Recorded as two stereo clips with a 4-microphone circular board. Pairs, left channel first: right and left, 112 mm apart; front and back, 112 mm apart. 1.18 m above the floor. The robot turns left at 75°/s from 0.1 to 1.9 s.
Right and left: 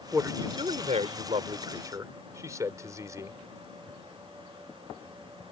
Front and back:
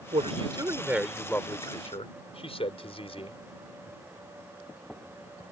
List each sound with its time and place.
0.1 s a man speaking: 165° left; by 3.4 s 30° left